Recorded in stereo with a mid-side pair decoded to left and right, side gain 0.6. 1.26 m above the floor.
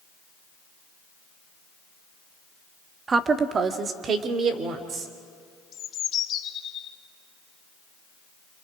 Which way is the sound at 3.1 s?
30° right.